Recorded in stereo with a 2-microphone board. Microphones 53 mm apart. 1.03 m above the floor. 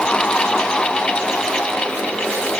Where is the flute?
No flute in this recording.